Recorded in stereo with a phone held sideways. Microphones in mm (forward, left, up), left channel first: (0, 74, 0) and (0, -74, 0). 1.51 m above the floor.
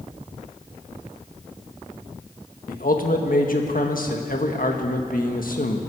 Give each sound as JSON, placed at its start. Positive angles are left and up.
{"t": 2.7, "sound": "a man speaking", "side_deg": 70, "distance_m": 1.6}